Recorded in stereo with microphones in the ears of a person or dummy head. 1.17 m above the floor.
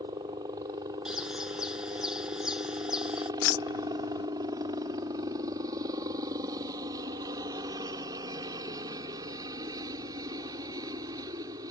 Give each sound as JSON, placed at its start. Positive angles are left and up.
{"t": 0.0, "sound": "a helicopter", "side_deg": -25}
{"t": 1.1, "sound": "a bird", "side_deg": -10}
{"t": 3.4, "sound": "keys jangling", "side_deg": 75}